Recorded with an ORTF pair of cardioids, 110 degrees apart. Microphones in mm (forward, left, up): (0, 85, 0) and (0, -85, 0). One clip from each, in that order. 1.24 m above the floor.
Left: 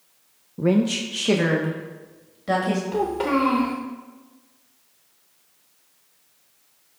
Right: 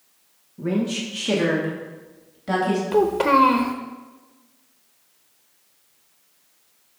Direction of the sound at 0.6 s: 50° left.